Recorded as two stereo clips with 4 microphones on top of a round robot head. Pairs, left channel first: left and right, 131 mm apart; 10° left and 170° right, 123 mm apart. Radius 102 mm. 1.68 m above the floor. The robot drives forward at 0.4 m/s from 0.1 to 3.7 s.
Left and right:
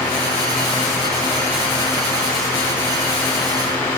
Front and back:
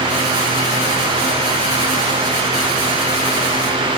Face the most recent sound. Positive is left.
No sound to turn to.